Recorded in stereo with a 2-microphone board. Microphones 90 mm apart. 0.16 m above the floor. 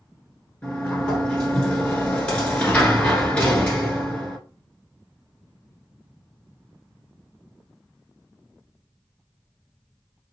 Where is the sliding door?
15° left (ahead or behind), 1.1 m.